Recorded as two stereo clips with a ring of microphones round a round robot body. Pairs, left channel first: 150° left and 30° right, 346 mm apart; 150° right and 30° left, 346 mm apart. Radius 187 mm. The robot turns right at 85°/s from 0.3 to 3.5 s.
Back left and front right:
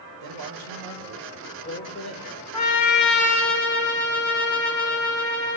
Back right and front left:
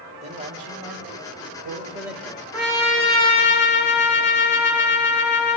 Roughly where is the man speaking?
Ahead right.